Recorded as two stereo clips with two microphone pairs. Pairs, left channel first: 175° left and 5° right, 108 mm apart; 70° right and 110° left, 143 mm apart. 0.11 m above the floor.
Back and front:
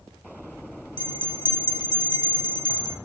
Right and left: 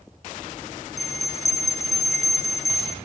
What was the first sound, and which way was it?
A bell, 140° right.